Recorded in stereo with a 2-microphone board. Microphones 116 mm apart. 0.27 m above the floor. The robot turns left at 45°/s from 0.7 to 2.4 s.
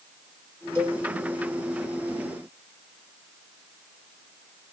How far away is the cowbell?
About 1.7 m.